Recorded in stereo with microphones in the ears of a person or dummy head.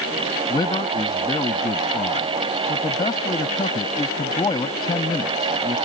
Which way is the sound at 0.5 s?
20° left (ahead or behind).